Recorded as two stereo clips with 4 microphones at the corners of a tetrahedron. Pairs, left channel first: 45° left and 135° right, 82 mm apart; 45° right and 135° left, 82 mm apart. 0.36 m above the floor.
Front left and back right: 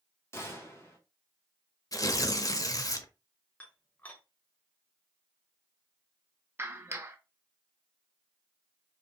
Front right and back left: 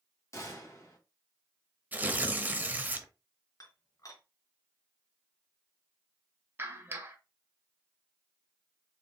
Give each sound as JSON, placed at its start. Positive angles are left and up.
{"t": 0.3, "sound": "a gunshot", "azimuth_deg": -5, "distance_m": 1.7}
{"t": 1.9, "sound": "tearing paper", "azimuth_deg": 70, "distance_m": 0.6}
{"t": 3.6, "sound": "dishes clattering", "azimuth_deg": -20, "distance_m": 1.2}
{"t": 6.6, "sound": "a clap", "azimuth_deg": 180, "distance_m": 0.8}